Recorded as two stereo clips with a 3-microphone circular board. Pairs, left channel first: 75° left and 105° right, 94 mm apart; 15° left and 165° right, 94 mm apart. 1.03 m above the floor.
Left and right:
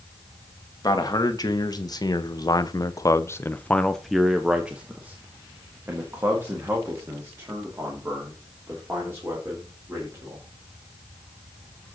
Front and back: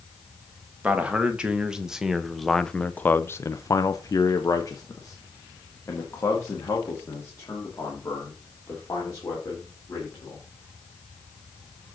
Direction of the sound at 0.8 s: 120° left.